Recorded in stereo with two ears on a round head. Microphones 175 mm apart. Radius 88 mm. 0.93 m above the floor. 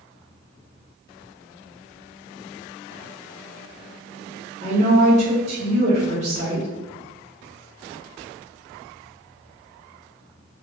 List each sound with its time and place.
4.6 s a woman speaking: 35° right (ahead or behind), 1.0 m